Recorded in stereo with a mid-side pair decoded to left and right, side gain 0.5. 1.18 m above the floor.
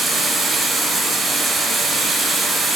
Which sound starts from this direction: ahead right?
Running water, at 0.0 s.